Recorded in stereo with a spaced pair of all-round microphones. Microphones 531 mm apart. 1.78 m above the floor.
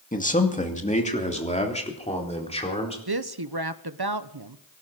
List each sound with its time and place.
0.1 s a man speaking: 15° left (ahead or behind), 2 m; by 3.0 s 10° left (ahead or behind), 4.5 m
3.1 s a woman speaking: 45° right (ahead or behind), 1.0 m